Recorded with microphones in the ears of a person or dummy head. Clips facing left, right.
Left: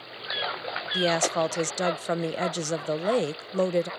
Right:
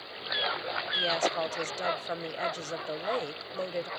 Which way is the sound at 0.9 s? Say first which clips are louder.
Left 6 dB; 60° left (ahead or behind).